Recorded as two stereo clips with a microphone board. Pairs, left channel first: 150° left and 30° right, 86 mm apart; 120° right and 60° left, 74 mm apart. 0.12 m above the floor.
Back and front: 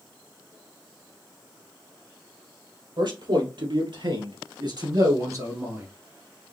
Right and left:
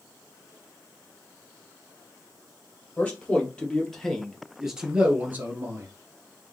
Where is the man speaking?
50° right, 3 m; by 5.9 s 25° left, 1.7 m.